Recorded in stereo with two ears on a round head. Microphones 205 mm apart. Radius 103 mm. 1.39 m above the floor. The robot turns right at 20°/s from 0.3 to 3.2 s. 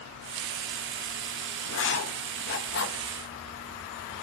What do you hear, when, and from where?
1.7 s writing: 60° left (ahead or behind), 1.0 m; by 3.0 s 50° left (ahead or behind), 1.0 m